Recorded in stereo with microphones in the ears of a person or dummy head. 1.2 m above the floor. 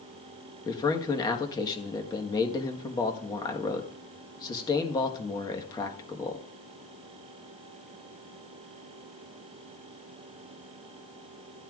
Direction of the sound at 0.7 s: 20° left (ahead or behind).